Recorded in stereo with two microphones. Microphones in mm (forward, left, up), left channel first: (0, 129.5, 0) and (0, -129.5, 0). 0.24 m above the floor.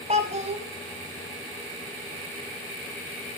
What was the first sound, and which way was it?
A child speaking, 25° right (ahead or behind).